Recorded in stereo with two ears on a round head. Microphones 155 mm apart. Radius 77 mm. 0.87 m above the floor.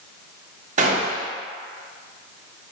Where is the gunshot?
45° right (ahead or behind), 0.7 m.